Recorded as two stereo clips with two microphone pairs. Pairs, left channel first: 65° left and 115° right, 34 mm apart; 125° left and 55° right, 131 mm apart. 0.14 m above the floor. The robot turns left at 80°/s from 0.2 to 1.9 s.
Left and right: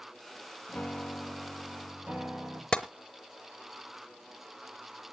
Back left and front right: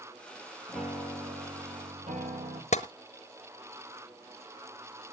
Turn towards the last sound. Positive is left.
turn(degrees=125)